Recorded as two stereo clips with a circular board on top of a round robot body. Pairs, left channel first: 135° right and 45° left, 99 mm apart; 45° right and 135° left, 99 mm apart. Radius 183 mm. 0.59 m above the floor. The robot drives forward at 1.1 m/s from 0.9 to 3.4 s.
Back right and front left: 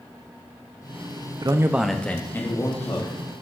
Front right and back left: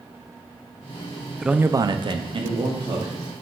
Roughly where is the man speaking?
Ahead left.